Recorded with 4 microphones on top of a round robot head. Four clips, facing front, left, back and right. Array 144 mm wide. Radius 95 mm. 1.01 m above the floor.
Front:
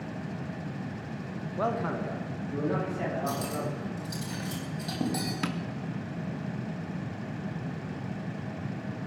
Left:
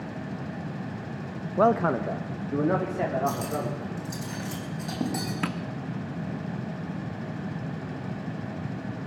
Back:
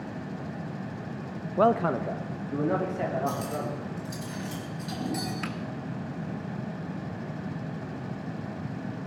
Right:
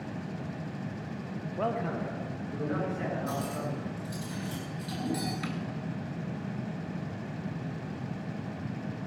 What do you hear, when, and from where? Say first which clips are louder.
1.6 s a man speaking: left 10 dB, back 7 dB; 130° left, 0.6 m; by 4.3 s 105° left, 4 m
3.3 s cutlery clinking: left 5 dB, back 1 dB; 55° left, 4 m
5.4 s tapping: left 5 dB, front 2 dB; 65° left, 0.6 m